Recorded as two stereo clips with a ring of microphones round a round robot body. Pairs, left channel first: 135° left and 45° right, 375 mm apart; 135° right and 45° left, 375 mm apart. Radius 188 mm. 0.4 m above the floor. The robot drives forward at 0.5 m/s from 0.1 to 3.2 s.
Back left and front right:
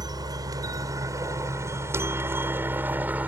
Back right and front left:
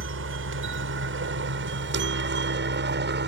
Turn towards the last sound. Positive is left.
turn(degrees=35)